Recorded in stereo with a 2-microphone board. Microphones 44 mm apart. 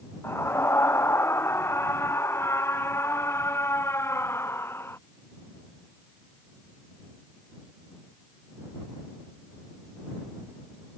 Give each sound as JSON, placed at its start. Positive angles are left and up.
{"t": 0.2, "sound": "a scream", "side_deg": 75}